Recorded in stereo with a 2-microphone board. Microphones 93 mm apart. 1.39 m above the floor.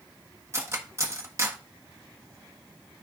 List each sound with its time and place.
0.5 s cutlery clinking: 30° right (ahead or behind), 1.2 m